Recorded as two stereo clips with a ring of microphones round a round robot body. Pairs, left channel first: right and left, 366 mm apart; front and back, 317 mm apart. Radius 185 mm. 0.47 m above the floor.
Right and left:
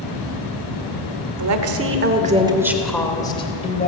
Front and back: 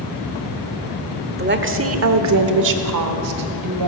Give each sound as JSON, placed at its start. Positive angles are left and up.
{"t": 1.4, "sound": "a woman speaking", "azimuth_deg": 125, "distance_m": 1.3}